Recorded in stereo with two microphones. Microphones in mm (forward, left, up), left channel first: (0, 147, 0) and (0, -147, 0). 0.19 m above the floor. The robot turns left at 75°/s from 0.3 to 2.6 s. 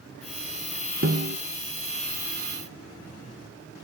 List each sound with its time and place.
1.0 s a snare drum: 45° right (ahead or behind), 0.8 m; by 1.4 s 55° right (ahead or behind), 0.8 m